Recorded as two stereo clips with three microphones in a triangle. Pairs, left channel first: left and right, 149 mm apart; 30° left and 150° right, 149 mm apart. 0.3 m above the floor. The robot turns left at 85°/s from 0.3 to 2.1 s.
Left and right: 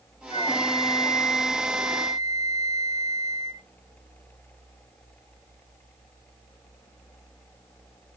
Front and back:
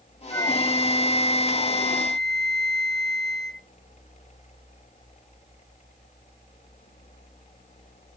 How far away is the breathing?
I don't hear breathing.